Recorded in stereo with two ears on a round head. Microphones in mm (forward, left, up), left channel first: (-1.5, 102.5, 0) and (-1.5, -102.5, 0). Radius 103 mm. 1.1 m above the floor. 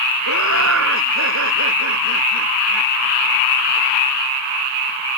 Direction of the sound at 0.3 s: 65° right (ahead or behind).